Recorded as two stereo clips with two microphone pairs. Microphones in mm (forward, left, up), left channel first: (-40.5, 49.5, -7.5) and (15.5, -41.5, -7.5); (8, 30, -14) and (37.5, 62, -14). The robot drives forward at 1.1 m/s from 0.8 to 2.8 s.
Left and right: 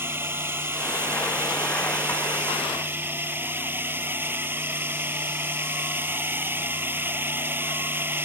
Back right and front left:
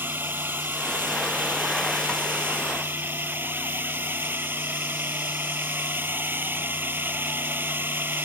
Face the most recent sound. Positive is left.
turn(degrees=10)